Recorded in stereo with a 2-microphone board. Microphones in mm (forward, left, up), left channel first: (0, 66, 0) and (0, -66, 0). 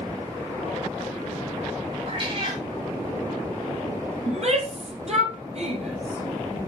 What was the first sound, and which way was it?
A cat meowing, 45° right (ahead or behind).